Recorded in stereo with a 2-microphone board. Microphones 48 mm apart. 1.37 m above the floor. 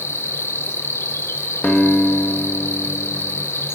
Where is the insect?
60° left (ahead or behind), 0.7 m.